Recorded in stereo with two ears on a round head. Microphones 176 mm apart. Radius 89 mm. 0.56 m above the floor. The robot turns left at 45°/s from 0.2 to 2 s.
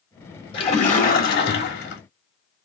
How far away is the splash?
About 2 m.